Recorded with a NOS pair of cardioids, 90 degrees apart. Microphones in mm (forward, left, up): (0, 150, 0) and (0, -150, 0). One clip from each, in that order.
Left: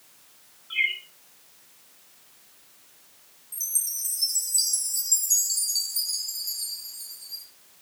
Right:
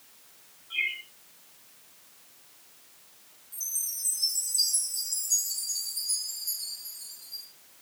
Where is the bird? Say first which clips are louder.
Left 5 dB; 50° left, 5.5 m.